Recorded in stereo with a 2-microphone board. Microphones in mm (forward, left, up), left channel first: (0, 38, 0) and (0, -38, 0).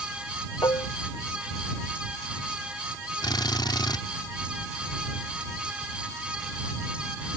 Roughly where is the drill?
Left.